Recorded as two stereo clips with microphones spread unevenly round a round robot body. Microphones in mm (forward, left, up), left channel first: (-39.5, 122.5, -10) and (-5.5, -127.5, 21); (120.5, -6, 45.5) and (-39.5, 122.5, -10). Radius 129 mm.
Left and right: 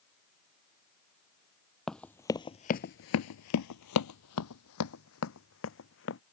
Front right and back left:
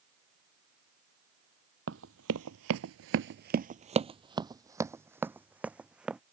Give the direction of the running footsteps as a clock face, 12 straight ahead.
6 o'clock.